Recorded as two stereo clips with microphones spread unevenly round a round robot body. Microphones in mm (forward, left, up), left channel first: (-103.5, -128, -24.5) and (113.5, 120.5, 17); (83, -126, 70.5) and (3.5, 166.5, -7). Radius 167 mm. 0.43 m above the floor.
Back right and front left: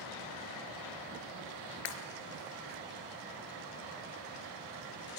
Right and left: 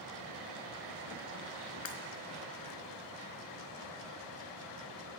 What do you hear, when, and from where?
1.9 s breaking glass: 115° right, 3.5 m